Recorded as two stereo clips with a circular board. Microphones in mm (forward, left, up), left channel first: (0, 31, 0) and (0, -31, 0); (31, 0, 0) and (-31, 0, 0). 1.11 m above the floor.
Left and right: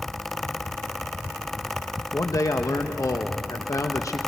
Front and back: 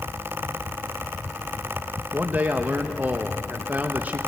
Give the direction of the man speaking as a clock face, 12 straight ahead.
8 o'clock.